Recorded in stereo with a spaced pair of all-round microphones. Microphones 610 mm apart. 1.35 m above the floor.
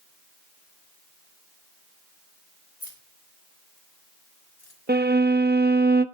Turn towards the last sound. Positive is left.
turn(degrees=-15)  # may be behind; listen again after turning